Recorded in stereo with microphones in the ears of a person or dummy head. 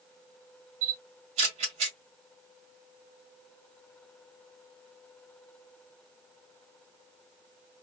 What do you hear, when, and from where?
0.8 s a camera shutter: 45° right (ahead or behind), 2 m